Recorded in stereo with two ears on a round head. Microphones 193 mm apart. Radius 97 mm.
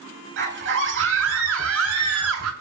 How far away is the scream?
About 7 m.